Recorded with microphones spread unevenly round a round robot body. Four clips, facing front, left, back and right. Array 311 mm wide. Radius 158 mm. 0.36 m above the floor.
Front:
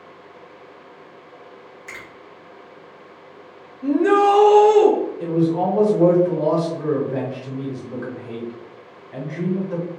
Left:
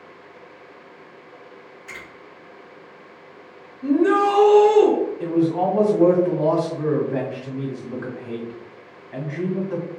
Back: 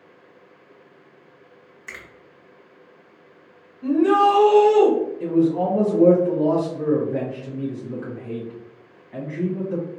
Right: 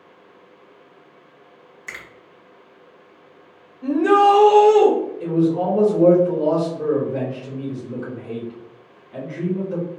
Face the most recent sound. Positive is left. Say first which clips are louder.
# right 2 dB, back 2 dB
turn(degrees=45)